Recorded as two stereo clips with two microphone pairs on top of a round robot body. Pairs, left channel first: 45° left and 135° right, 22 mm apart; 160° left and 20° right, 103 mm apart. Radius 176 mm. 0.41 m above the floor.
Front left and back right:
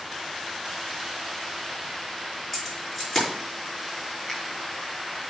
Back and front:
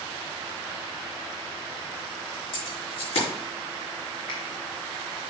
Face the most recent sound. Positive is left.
turn(degrees=115)